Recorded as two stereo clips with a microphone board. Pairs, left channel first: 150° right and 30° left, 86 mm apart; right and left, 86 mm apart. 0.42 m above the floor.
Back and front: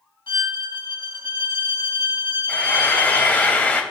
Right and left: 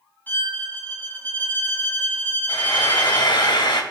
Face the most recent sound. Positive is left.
turn(degrees=-80)